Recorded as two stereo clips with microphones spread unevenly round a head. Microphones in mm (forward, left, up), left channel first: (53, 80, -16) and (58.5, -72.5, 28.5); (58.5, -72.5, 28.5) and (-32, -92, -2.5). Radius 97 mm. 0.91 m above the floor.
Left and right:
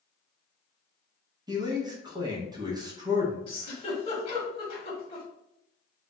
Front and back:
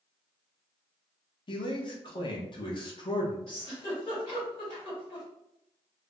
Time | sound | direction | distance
1.5 | a man speaking | 15° right | 0.9 m
3.5 | a giggle | 65° left | 1.3 m